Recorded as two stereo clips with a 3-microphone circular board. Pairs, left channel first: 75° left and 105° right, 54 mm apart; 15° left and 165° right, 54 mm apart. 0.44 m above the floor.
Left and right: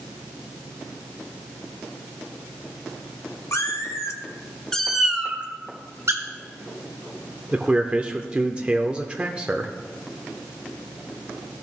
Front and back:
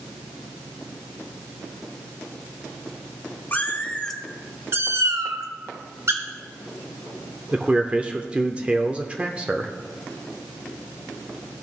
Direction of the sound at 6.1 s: 135° right.